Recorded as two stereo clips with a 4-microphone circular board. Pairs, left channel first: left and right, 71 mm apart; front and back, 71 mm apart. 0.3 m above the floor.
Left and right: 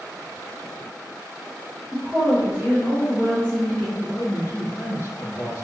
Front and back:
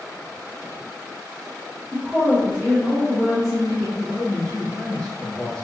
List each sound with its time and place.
1.9 s a woman speaking: 105° right, 1.0 m; by 3.9 s 10° right, 1.7 m
4.0 s a man speaking: 80° left, 1.1 m